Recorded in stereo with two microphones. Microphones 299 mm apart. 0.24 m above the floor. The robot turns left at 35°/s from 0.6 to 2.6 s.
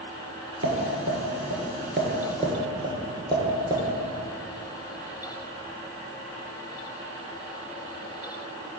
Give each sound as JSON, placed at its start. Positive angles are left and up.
{"t": 0.6, "sound": "tapping", "side_deg": -75, "distance_m": 1.6}